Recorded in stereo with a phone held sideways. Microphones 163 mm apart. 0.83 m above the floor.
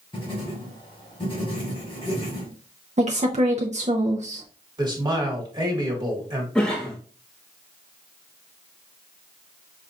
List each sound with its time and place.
0.1 s writing: 30° left (ahead or behind), 1.6 m
3.0 s a woman speaking: 45° right (ahead or behind), 0.5 m
4.8 s a man speaking: 25° right (ahead or behind), 1.3 m
6.5 s a cough: 5° left (ahead or behind), 0.6 m